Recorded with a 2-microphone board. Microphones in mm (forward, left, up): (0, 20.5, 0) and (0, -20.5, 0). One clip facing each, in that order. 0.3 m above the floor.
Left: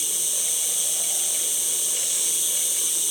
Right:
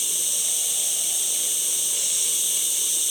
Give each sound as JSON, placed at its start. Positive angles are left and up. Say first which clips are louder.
{"t": 0.0, "sound": "an insect", "louder": "right 1 dB", "side_deg": -45, "distance_m": 1.7}